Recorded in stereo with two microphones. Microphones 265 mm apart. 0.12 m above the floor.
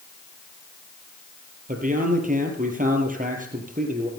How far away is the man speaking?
About 3.5 m.